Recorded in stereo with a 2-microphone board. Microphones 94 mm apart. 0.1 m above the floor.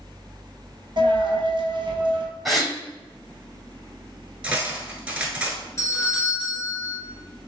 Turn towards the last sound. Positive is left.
turn(degrees=35)  # may be behind; listen again after turning